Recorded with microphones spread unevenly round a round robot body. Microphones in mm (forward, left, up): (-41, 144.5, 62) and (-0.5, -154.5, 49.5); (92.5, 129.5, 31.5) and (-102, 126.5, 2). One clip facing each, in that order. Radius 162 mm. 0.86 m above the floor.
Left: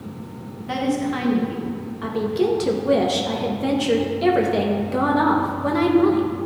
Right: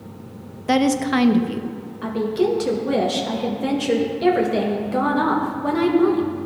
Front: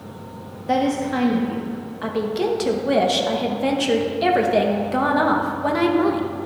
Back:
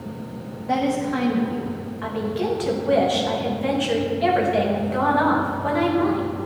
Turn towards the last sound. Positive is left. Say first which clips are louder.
# right 1 dB, front 3 dB
turn(degrees=5)